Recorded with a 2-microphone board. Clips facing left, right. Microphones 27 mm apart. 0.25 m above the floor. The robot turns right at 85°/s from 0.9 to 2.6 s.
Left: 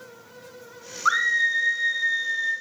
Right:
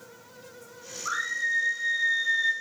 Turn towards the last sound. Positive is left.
turn(degrees=-140)